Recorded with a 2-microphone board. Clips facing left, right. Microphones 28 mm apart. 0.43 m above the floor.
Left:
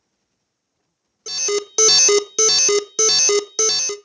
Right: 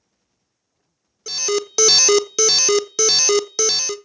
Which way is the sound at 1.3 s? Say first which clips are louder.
Right 1 dB; 5° right (ahead or behind).